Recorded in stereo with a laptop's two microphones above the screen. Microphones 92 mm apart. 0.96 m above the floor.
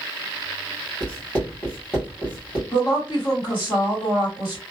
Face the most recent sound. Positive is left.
turn(degrees=55)  # may be behind; listen again after turning